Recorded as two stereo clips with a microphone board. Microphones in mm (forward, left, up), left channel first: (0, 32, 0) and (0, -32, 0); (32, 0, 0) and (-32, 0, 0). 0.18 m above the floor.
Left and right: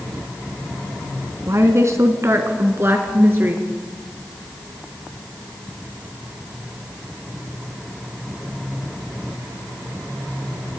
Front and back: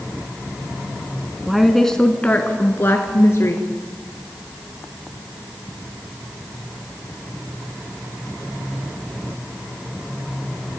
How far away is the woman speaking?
About 1.5 m.